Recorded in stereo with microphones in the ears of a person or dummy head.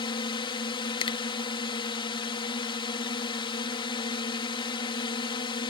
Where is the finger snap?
30° left (ahead or behind).